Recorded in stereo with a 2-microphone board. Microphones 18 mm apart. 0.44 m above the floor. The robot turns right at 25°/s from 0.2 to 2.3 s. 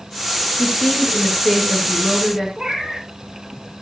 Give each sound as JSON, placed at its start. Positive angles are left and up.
{"t": 0.6, "sound": "a woman speaking", "azimuth_deg": 105, "distance_m": 7.0}
{"t": 2.6, "sound": "a cat meowing", "side_deg": -40, "distance_m": 9.0}